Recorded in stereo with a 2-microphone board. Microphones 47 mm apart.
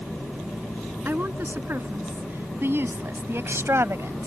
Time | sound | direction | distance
1.1 | a woman speaking | 50° right (ahead or behind) | ?